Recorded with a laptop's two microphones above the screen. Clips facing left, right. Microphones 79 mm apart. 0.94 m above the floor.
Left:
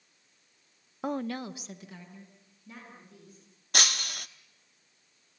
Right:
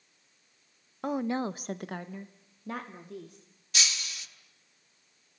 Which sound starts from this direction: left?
Breaking glass, at 3.7 s.